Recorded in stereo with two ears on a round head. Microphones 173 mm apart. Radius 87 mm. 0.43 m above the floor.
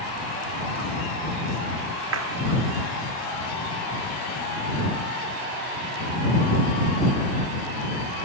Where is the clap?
80° right.